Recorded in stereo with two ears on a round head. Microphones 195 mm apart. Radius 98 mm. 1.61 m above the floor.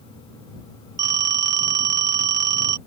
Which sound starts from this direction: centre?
A phone ringing, at 1.0 s.